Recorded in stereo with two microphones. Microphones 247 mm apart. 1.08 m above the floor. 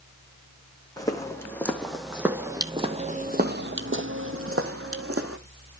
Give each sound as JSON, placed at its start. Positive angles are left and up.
{"t": 1.0, "sound": "footsteps", "side_deg": 15, "distance_m": 2.5}